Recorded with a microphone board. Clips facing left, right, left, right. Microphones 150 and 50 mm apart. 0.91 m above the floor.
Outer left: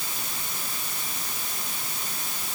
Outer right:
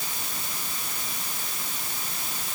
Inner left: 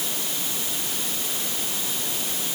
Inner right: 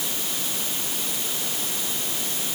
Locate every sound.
Only background noise.